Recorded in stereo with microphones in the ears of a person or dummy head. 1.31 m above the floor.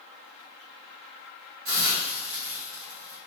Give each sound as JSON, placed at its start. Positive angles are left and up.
{"t": 1.6, "sound": "a hiss", "side_deg": -60, "distance_m": 1.0}